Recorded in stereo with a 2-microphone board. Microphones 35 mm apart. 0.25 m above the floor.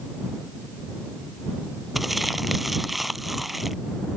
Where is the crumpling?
5° right (ahead or behind).